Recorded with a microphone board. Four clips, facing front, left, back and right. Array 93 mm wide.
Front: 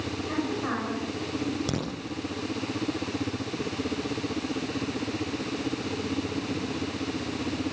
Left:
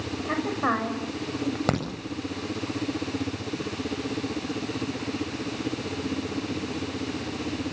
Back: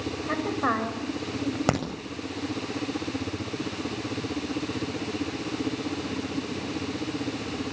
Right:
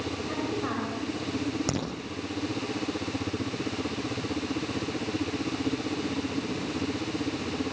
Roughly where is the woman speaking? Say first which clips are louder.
Left 7 dB, back 4 dB; behind left.